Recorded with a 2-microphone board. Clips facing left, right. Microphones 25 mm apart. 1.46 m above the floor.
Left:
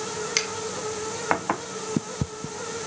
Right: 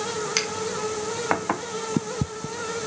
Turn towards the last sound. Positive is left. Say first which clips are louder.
# even
turn(degrees=0)  # may be behind; listen again after turning